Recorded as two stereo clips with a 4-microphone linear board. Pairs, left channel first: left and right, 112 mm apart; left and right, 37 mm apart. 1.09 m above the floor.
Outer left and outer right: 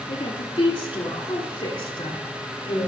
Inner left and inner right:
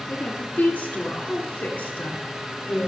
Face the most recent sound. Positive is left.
turn(degrees=45)  # may be behind; listen again after turning